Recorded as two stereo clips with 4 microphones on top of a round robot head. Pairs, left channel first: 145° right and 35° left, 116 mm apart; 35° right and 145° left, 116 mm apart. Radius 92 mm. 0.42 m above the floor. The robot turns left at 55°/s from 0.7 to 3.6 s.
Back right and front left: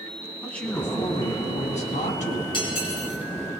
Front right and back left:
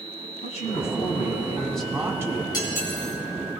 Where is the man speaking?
65° right, 3 m; by 2.4 s 160° right, 3 m.